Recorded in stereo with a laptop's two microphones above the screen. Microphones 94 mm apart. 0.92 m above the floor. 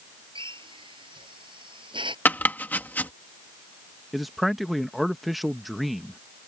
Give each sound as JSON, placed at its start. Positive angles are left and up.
{"t": 0.3, "sound": "a drill", "side_deg": -60}
{"t": 2.2, "sound": "chopping", "side_deg": 20}
{"t": 4.1, "sound": "a man speaking", "side_deg": 0}